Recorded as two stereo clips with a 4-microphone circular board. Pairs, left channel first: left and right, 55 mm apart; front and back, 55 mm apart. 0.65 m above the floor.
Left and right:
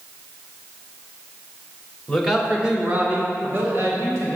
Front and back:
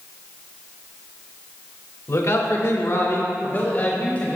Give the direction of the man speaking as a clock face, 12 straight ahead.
12 o'clock.